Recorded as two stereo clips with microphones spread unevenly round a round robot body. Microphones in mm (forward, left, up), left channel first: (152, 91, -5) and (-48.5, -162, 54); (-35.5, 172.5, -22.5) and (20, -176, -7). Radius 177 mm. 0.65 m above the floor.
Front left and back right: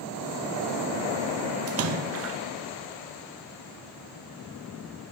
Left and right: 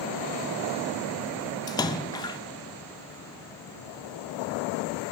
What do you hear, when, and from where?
1.7 s a splash: 175° left, 0.6 m